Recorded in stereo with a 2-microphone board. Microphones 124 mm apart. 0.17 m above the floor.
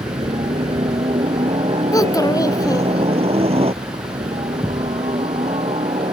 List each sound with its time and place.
0.0 s a helicopter: 50° right (ahead or behind)
1.9 s a child speaking: 30° left (ahead or behind)
4.6 s a thud: centre (ahead or behind)